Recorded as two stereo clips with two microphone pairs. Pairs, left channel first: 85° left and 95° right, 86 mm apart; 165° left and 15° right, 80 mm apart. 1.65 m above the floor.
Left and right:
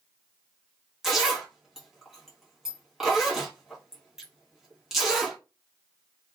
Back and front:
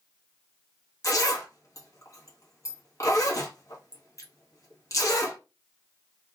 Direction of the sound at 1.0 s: Straight behind.